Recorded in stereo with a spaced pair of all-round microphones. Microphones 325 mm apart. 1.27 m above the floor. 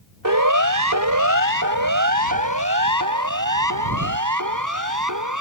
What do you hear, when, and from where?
0.2 s a siren: 80° right; by 5.4 s 75° right (ahead or behind)